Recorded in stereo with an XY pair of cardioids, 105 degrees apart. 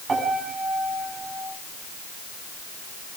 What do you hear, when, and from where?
0.1 s a piano: 30° right, 9 m